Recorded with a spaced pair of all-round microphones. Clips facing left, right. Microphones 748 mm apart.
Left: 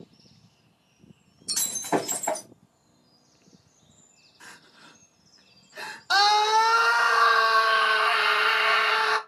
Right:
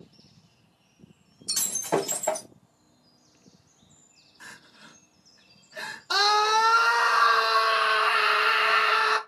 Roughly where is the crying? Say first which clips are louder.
Right 1 dB; centre.